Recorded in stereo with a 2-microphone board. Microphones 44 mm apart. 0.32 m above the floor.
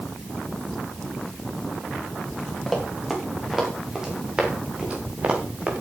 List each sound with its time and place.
2.7 s running footsteps: centre (ahead or behind), 6.5 m; by 5.7 s 35° right (ahead or behind), 5.5 m